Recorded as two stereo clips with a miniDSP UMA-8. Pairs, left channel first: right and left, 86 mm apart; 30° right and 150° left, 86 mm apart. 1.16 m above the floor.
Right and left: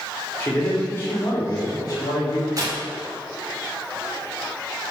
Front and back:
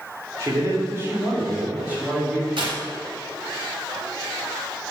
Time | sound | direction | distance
0.4 | a man speaking | 155° right | 3.5 m
2.6 | tearing paper | 140° left | 3 m